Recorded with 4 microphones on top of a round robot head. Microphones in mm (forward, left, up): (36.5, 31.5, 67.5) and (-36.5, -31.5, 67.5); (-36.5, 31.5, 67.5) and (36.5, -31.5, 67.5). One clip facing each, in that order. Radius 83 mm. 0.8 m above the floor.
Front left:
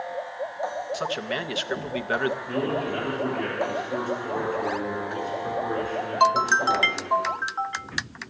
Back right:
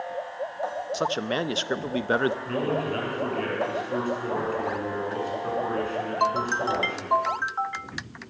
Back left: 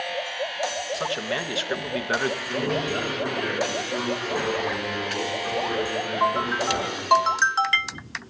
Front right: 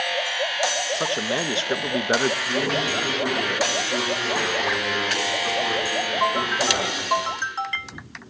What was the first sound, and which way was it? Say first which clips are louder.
A man speaking: back right 2 dB, front right 3 dB; 90° right.